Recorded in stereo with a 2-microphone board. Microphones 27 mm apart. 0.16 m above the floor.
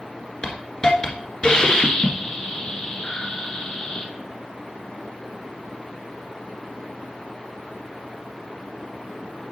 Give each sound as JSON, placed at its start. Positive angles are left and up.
{"t": 0.4, "sound": "a hiss", "side_deg": 35, "distance_m": 1.5}